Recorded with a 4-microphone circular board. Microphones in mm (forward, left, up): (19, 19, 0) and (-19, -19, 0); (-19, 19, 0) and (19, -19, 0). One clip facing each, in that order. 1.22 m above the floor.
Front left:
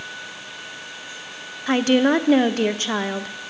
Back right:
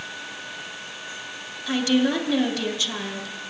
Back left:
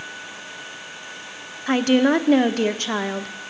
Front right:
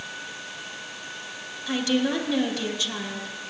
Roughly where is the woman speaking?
Left.